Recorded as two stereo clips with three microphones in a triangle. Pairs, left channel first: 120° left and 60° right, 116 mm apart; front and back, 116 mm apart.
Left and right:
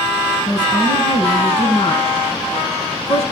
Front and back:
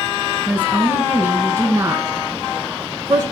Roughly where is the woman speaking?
Behind left.